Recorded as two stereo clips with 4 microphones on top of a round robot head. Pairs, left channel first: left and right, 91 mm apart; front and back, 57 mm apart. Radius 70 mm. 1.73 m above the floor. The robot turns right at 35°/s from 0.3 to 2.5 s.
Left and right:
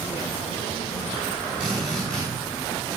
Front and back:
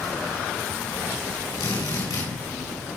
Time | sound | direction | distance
1.6 | a drill | 10° right | 7 m